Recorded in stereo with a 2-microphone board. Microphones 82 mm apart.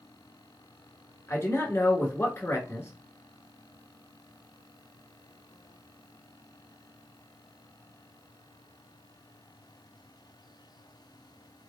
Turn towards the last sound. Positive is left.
turn(degrees=30)  # may be behind; listen again after turning